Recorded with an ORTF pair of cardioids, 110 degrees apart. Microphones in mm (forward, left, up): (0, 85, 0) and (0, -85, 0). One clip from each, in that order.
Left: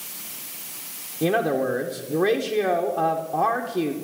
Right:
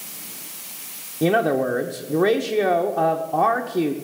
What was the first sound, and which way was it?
A man speaking, 15° right.